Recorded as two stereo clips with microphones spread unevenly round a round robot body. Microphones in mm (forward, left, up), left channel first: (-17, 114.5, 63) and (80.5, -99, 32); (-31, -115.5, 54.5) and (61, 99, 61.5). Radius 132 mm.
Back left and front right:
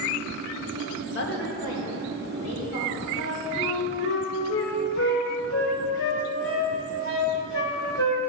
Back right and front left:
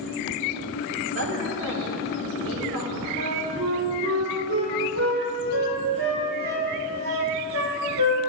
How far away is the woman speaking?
About 1.4 m.